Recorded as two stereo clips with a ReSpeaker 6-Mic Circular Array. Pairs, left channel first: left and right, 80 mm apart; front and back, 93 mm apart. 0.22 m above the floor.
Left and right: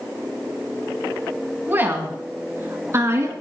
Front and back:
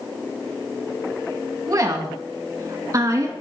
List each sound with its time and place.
1.7 s a woman speaking: 145° right, 2 m; by 3.3 s 135° right, 2.5 m